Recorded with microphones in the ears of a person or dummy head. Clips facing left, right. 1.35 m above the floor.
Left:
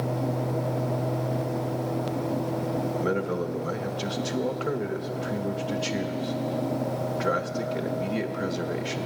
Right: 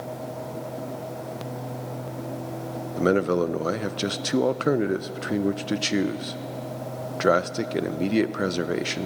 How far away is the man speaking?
About 0.5 m.